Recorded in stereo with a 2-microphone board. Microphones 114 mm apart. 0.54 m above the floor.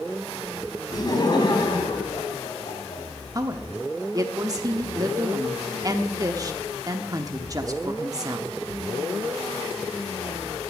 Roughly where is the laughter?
Left.